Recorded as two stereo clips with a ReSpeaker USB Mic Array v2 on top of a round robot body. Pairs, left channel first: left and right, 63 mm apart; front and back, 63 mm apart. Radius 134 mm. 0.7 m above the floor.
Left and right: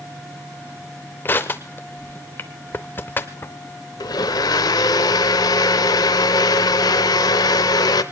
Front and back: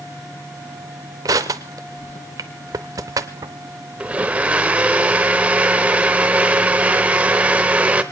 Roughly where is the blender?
Left.